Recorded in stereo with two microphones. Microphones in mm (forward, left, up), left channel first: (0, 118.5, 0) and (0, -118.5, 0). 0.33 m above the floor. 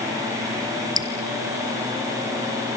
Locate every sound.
1.0 s dripping: 15° right (ahead or behind), 2.5 m